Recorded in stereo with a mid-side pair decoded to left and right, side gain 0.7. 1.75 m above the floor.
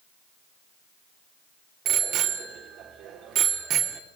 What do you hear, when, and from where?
1.9 s a bicycle bell: 50° right, 4 m